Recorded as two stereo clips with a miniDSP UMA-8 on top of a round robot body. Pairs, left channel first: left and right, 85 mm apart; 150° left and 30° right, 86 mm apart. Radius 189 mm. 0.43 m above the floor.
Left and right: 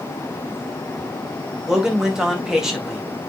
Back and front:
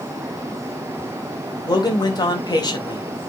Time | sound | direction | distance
1.7 | a man speaking | 175° right | 3 m